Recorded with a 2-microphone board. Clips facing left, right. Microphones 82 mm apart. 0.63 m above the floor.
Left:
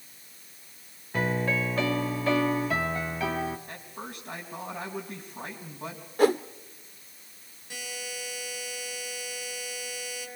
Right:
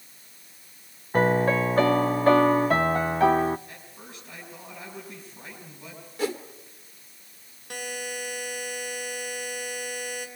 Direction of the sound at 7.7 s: 65° right (ahead or behind).